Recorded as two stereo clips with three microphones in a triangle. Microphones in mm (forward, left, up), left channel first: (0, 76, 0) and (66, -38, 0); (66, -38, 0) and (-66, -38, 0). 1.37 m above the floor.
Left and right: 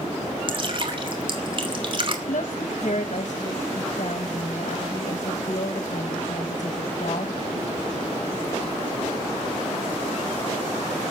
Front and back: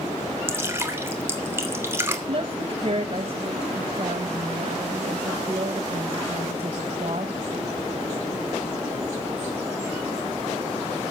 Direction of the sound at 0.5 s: 110° right.